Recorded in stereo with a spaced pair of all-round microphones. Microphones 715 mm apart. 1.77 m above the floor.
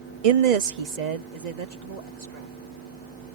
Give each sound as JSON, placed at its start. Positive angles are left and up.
{"t": 0.2, "sound": "a woman speaking", "side_deg": -55}